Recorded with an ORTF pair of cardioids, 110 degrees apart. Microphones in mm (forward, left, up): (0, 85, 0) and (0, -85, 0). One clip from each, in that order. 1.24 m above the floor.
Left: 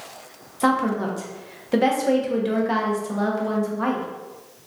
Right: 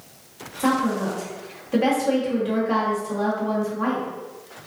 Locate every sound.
0.6 s a woman speaking: 35° left, 0.9 m